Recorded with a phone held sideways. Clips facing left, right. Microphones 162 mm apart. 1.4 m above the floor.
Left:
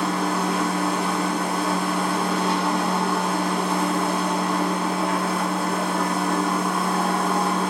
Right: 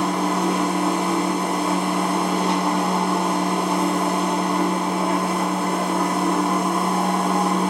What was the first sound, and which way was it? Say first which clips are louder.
A machine running: right 2 dB; 25° right (ahead or behind).